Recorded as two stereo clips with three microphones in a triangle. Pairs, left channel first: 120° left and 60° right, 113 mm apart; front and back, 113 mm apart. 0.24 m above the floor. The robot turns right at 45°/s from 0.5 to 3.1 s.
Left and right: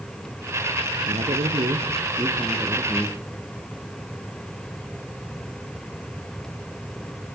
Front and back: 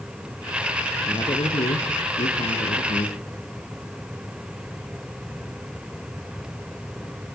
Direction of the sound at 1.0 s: 55° right.